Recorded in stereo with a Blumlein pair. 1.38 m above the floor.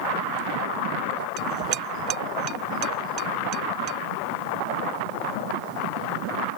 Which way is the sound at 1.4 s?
35° right.